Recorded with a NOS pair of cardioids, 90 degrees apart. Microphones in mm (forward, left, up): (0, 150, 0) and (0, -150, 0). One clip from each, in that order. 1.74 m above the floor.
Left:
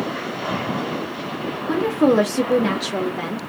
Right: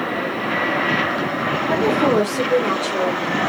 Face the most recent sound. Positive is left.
turn(degrees=75)